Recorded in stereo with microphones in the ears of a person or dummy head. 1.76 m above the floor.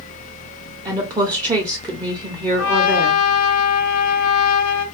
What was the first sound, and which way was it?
A woman speaking, 20° right (ahead or behind).